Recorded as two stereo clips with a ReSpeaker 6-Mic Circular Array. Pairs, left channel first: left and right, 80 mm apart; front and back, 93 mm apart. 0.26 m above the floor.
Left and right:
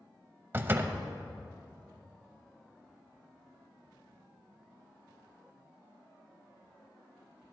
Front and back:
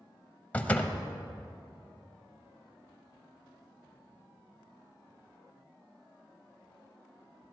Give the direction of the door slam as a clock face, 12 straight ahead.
2 o'clock.